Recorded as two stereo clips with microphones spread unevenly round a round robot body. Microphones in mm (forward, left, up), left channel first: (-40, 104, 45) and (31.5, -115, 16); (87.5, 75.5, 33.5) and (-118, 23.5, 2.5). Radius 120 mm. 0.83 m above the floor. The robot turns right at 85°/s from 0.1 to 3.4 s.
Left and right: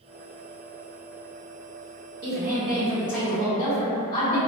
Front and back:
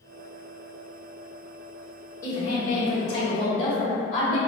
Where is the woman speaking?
70° right, 0.8 m; by 4.4 s 30° left, 0.8 m.